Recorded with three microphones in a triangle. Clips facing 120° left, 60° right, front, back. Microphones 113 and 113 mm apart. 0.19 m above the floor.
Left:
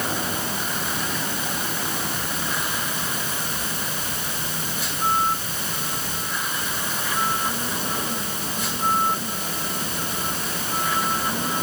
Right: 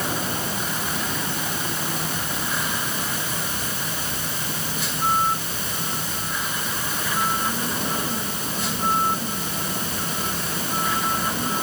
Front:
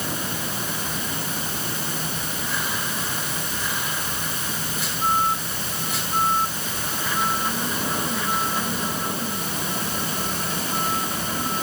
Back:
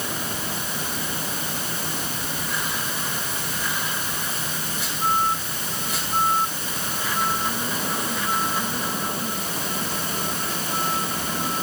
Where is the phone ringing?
I don't hear a phone ringing.